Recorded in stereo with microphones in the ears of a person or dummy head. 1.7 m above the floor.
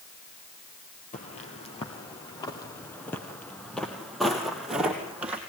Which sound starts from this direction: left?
Footsteps, at 1.1 s.